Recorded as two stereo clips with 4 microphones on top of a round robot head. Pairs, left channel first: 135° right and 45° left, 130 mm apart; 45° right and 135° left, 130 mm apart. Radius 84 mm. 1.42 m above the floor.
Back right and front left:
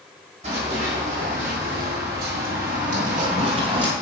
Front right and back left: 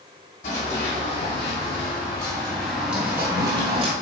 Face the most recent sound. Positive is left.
turn(degrees=95)